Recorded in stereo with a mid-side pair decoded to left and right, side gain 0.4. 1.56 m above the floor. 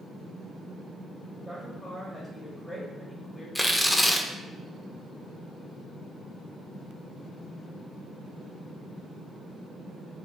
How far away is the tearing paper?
About 0.6 m.